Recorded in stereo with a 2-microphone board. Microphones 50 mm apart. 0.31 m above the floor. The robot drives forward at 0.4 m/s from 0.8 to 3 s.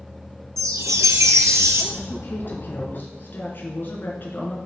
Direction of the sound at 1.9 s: 40° left (ahead or behind).